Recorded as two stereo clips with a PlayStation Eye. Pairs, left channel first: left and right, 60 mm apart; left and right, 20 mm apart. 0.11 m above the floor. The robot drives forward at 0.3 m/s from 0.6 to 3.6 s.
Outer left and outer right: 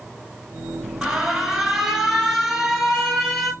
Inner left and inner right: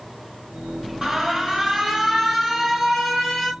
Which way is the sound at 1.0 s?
10° right (ahead or behind).